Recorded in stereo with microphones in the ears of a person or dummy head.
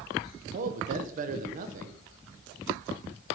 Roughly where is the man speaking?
Right.